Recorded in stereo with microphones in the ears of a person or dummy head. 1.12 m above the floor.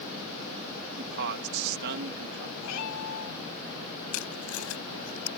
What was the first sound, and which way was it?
A man speaking, 50° right (ahead or behind).